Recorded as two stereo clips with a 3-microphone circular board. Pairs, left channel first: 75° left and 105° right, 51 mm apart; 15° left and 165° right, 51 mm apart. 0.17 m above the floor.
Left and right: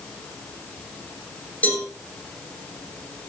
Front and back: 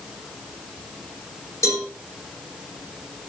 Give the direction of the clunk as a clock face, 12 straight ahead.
I don't hear a clunk.